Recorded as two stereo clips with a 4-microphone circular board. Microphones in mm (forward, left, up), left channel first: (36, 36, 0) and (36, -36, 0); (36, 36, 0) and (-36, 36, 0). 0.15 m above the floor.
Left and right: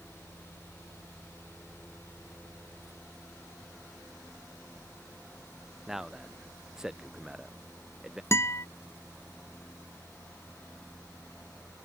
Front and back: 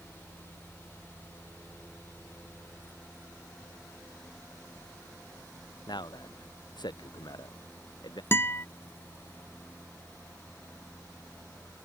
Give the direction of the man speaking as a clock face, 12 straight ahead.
12 o'clock.